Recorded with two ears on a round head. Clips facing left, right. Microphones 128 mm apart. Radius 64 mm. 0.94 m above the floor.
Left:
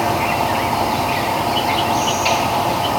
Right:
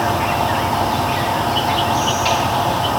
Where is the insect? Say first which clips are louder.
Even; 5° left (ahead or behind), 1.1 m.